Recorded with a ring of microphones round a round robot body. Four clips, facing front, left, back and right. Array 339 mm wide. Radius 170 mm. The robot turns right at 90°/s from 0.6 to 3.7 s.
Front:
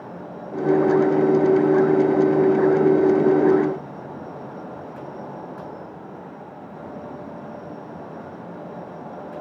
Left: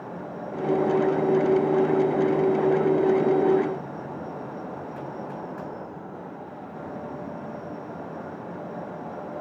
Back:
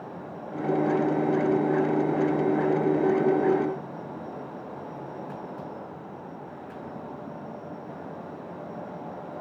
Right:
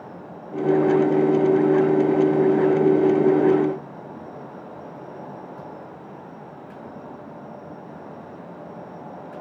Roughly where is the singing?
No singing in this recording.